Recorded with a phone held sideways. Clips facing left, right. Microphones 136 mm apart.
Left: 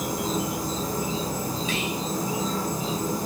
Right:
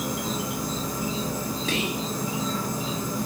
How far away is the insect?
About 1.2 m.